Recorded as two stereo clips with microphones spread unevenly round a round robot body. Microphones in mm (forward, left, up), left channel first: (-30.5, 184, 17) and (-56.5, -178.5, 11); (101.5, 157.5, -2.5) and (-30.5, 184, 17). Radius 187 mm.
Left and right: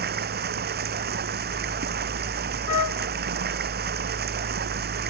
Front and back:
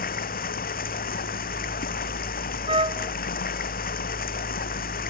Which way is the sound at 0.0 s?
30° right.